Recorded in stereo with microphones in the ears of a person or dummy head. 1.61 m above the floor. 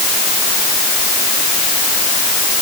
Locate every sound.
Only background noise.